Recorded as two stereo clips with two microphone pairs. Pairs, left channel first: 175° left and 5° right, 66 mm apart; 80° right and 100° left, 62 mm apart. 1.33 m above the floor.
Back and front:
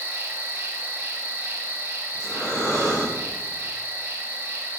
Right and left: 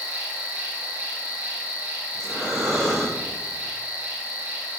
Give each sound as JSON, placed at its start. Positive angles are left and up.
{"t": 0.0, "sound": "an insect", "azimuth_deg": 40, "distance_m": 0.7}
{"t": 2.1, "sound": "breathing", "azimuth_deg": -170, "distance_m": 2.0}